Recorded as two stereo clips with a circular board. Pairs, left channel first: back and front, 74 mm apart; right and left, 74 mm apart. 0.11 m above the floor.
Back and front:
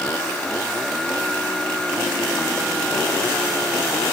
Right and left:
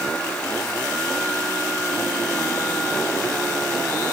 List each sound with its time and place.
Only background noise.